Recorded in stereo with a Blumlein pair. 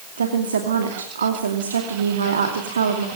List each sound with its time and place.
0.2 s a woman speaking: 70° right, 2.5 m